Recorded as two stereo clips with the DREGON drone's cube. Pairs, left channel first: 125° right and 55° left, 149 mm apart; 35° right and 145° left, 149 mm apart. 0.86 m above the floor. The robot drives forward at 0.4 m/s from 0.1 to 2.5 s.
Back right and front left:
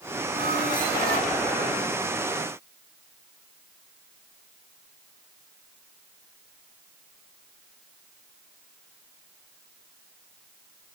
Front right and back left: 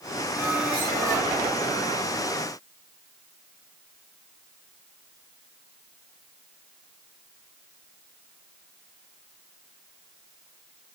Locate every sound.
0.3 s a squeak: 65° left, 3.5 m; by 1.3 s 70° left, 3.5 m